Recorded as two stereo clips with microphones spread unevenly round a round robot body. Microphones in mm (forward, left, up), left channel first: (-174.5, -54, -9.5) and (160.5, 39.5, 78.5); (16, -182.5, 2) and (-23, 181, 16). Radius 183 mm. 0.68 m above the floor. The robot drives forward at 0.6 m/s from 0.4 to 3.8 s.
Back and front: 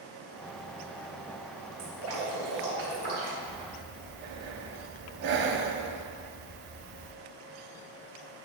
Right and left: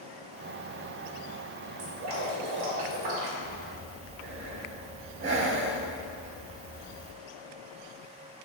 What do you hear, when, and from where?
1.8 s dripping: 65° left, 3 m; by 3.3 s 85° left, 3 m
3.4 s breathing: 35° left, 0.8 m; by 7.1 s 50° left, 0.7 m